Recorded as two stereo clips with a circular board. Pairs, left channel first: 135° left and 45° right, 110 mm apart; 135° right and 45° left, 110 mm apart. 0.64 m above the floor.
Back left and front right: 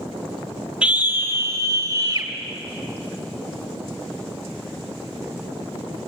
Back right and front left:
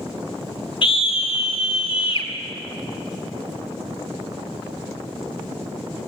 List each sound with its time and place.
0.8 s a scream: 125° right, 1.3 m; by 2.3 s 100° right, 3.5 m